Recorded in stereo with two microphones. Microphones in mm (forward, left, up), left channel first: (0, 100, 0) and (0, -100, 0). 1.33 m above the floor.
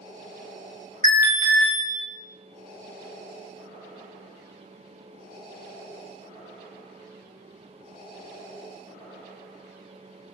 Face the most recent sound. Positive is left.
turn(degrees=-45)  # may be behind; listen again after turning